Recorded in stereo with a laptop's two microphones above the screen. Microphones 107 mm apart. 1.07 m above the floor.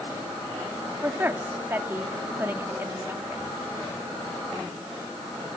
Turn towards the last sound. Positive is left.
turn(degrees=-20)  # may be behind; listen again after turning